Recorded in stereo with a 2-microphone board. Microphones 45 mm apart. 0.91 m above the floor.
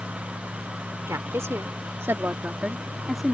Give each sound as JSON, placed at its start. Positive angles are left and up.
{"t": 1.1, "sound": "a woman speaking", "side_deg": -80}